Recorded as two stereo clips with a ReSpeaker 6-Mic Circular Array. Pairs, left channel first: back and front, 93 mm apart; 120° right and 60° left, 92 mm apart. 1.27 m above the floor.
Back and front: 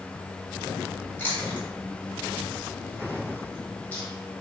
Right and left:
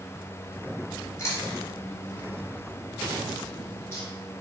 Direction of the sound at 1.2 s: 130° right.